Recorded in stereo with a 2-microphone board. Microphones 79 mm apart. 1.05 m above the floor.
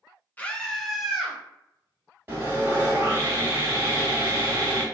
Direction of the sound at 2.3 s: 30° right (ahead or behind).